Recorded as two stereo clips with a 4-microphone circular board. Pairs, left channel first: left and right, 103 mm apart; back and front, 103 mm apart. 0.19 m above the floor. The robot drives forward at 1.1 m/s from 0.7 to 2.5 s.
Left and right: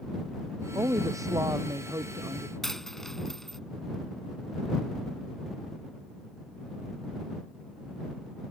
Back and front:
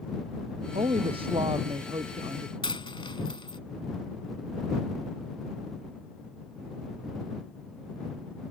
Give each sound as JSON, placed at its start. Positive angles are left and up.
{"t": 0.8, "sound": "a woman speaking", "azimuth_deg": -30}
{"t": 2.6, "sound": "a dropped coin", "azimuth_deg": 175}